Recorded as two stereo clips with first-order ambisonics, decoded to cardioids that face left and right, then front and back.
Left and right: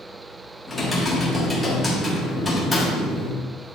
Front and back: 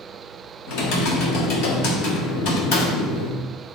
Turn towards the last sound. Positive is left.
turn(degrees=15)